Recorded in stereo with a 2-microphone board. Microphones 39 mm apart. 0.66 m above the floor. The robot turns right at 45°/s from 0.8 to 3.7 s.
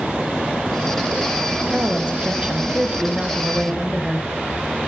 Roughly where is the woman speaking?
Right.